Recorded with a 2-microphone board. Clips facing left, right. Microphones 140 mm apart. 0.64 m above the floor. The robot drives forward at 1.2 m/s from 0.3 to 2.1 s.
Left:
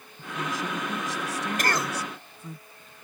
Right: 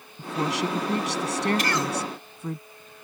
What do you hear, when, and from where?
0.2 s a woman speaking: 80° right; by 2.6 s 65° right (ahead or behind)
1.6 s a cough: 50° left (ahead or behind)